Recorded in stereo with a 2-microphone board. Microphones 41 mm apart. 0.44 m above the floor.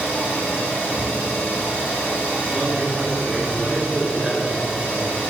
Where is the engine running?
50° left (ahead or behind), 1.3 m.